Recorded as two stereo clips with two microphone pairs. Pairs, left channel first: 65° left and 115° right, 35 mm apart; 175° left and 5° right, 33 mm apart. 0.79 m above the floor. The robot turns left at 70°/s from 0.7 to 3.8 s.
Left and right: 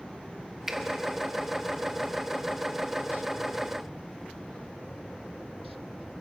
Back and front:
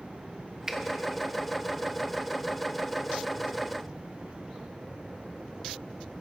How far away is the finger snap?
About 1.0 m.